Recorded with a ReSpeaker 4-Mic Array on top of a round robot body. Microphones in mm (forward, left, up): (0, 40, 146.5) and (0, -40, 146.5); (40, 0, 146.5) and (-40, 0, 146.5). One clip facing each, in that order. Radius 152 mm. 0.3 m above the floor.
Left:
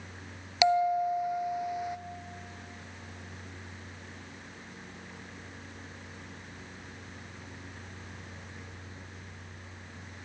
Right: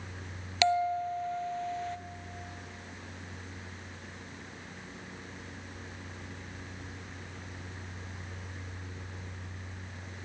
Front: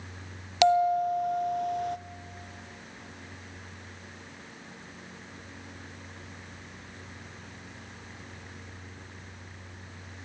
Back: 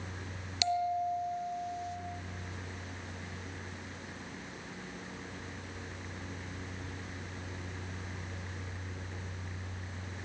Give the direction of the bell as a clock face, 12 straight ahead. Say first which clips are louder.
Left 3 dB, front 9 dB; 12 o'clock.